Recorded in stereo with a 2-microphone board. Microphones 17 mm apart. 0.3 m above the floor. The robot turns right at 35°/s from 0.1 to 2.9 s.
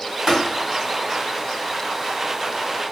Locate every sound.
0.3 s tapping: 40° right (ahead or behind), 1.6 m; by 0.4 s 35° right (ahead or behind), 1.6 m